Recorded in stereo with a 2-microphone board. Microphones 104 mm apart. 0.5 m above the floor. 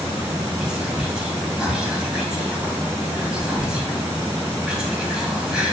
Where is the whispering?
5° right (ahead or behind), 0.7 m.